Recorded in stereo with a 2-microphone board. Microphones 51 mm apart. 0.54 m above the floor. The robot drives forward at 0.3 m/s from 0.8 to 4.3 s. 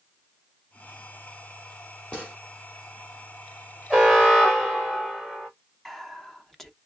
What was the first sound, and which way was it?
A gunshot, 20° left (ahead or behind).